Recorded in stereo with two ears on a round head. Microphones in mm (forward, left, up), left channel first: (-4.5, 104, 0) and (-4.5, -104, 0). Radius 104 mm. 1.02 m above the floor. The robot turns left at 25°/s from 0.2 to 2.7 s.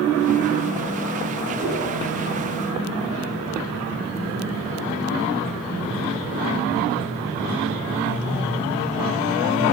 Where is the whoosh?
35° right (ahead or behind), 5.5 m; by 1.8 s 25° right (ahead or behind), 5.5 m.